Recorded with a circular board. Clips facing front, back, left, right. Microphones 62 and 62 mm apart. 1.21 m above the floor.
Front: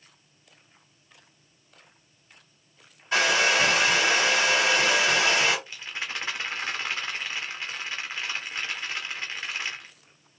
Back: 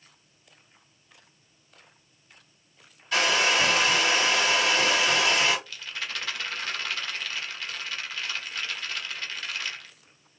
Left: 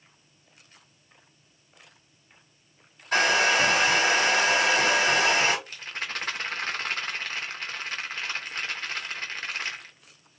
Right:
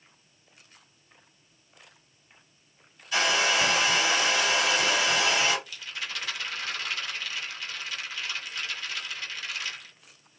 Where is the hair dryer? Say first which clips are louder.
Front 1 dB, left 3 dB; 65° left, 3.5 m.